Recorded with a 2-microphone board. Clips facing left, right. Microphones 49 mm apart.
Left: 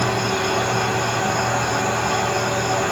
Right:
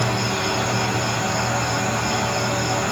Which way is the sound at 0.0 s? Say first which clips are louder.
Left 2 dB; 15° left (ahead or behind).